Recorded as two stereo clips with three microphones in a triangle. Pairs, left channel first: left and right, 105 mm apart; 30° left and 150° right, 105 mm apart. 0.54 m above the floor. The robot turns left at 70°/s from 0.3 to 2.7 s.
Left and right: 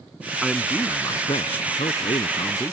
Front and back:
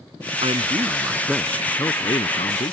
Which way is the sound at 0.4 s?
175° right.